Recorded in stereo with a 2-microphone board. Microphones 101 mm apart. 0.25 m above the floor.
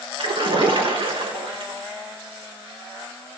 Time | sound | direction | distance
0.2 | a splash | 65° right (ahead or behind) | 4 m